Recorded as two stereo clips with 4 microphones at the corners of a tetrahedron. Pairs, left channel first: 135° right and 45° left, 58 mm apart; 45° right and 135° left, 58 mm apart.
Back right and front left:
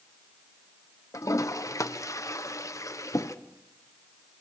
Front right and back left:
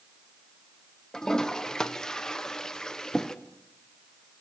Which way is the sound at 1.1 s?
125° right.